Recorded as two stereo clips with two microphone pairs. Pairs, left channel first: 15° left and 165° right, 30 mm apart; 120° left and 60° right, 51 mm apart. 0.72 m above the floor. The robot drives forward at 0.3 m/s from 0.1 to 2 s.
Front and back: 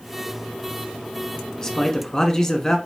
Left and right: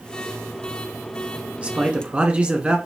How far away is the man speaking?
About 1.2 m.